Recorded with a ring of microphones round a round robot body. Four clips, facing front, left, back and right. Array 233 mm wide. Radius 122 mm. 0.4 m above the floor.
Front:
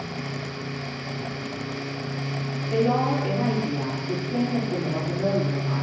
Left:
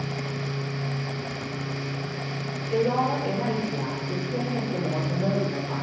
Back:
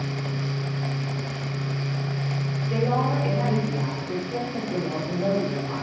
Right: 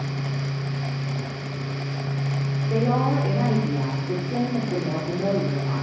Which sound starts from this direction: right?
A woman speaking, at 2.7 s.